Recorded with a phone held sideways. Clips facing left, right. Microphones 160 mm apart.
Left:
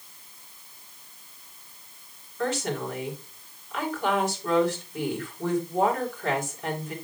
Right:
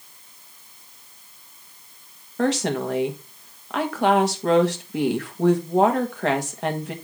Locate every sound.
2.4 s a woman speaking: 75° right (ahead or behind), 1.6 m